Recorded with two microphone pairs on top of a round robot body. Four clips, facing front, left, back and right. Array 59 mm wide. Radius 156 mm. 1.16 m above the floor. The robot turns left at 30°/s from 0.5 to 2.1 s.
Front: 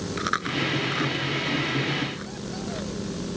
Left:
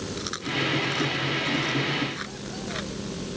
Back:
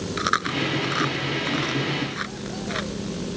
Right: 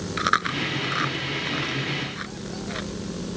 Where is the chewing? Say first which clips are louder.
Right 8 dB, back 3 dB; 130° right; by 2.9 s 175° right.